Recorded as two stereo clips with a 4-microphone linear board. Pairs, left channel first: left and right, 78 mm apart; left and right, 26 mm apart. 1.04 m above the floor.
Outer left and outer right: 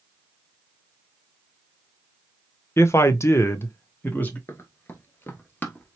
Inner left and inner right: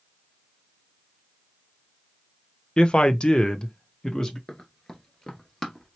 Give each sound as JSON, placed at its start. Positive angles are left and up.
{"t": 2.8, "sound": "a man speaking", "side_deg": 35, "distance_m": 0.7}
{"t": 4.5, "sound": "running footsteps", "side_deg": 30, "distance_m": 1.1}